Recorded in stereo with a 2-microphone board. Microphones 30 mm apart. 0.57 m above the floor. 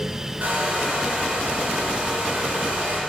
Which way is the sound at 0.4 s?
80° right.